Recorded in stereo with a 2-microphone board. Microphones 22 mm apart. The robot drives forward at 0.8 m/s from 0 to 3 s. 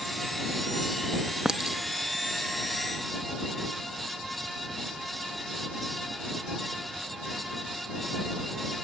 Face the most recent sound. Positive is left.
turn(degrees=-25)  # may be behind; listen again after turning